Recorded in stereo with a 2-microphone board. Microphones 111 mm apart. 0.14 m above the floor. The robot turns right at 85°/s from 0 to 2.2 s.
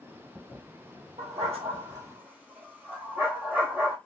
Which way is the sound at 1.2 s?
70° right (ahead or behind).